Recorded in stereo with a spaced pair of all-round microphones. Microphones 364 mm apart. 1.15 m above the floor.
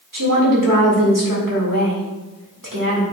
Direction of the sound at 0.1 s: 65° right (ahead or behind).